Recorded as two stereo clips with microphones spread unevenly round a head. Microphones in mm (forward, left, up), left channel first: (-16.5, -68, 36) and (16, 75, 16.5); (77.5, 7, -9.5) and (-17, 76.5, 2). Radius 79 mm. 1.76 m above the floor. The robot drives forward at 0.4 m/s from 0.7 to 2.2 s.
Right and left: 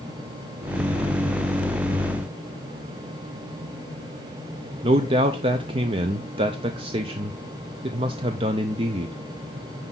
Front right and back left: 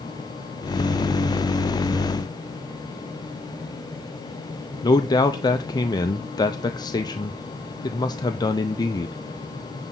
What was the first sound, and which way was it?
A man speaking, 20° left.